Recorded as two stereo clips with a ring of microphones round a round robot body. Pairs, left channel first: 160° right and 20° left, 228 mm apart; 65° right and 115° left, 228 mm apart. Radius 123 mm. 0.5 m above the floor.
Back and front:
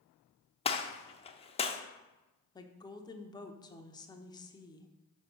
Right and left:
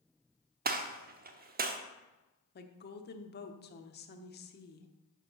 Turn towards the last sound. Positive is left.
turn(degrees=-90)